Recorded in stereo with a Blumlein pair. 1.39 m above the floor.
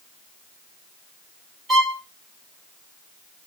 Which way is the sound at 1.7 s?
5° right.